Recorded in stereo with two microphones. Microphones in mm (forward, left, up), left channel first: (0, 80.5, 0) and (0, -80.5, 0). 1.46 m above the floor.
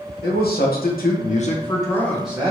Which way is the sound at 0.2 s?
75° left (ahead or behind).